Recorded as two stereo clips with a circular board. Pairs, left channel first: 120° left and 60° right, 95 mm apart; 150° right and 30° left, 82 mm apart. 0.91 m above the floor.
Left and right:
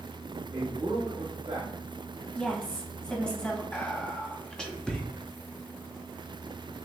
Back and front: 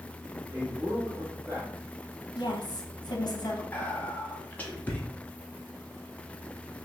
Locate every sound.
0.5 s a man speaking: 30° right, 1.4 m
2.4 s a woman speaking: 165° right, 1.0 m
3.7 s whispering: 175° right, 0.6 m